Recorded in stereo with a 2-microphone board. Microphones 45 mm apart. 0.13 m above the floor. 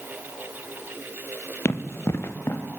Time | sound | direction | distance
1.6 | running footsteps | 85° left | 1.8 m